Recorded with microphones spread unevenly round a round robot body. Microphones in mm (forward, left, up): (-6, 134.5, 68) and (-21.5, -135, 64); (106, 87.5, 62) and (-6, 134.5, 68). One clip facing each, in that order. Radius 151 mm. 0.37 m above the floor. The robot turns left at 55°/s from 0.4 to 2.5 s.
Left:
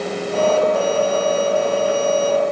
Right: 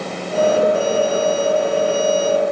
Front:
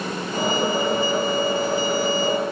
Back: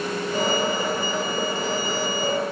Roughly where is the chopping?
No chopping in this recording.